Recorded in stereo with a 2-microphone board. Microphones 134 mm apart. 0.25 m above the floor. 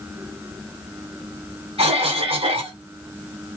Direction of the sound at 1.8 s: 45° right (ahead or behind).